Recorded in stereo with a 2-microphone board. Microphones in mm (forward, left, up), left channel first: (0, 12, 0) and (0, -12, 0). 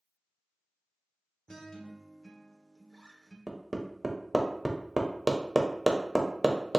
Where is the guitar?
30° left (ahead or behind), 0.7 m.